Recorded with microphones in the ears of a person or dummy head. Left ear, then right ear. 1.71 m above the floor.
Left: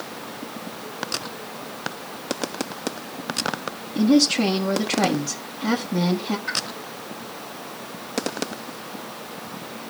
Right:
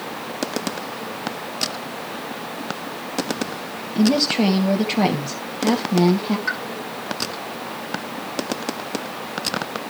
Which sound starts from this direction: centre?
A woman speaking, at 4.0 s.